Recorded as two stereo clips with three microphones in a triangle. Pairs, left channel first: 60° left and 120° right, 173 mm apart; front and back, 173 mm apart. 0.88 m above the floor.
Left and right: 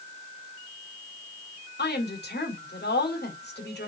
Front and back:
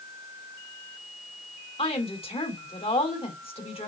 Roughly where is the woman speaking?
Ahead left.